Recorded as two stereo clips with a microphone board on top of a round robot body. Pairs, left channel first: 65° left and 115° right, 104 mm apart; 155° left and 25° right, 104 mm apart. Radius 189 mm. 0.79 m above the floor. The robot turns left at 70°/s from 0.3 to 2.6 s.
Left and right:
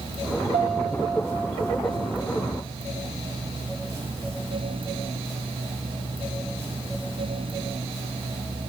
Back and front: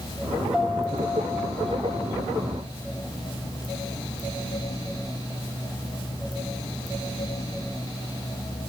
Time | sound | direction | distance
0.5 | a piano | 105° right | 2.0 m